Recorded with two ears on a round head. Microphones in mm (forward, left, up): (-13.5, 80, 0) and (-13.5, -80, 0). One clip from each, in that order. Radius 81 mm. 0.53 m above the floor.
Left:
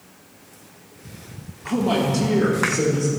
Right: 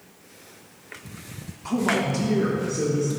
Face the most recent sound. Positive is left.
turn(degrees=40)  # may be behind; listen again after turning